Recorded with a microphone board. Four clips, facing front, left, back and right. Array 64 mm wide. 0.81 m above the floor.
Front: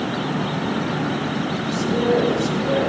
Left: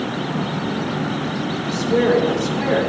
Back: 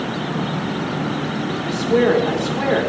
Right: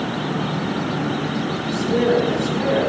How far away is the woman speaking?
About 3 m.